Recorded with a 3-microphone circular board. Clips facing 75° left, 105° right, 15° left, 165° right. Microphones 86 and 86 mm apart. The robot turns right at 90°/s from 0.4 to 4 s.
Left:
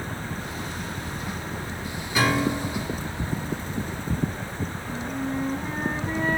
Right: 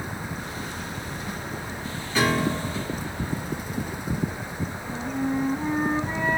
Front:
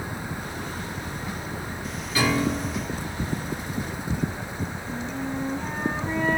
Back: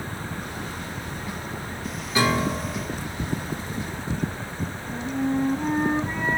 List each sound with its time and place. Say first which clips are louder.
2.1 s a piano: even, back 1 dB; 150° left, 1.3 m; by 3.0 s 135° right, 1.3 m
4.8 s a flute: right 4 dB, back 8 dB; 135° right, 0.8 m